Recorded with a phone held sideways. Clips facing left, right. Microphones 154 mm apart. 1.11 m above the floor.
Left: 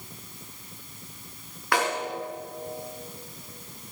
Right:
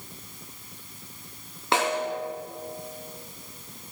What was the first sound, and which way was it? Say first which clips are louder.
A snare drum: right 2 dB; 25° right (ahead or behind).